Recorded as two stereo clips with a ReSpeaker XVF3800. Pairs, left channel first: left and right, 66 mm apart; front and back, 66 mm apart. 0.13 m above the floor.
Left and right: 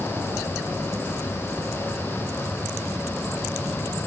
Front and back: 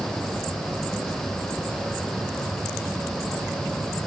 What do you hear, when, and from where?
Only background noise.